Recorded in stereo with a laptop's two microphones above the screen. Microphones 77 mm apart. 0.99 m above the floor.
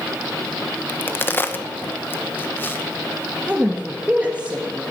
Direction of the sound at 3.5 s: 20° right (ahead or behind).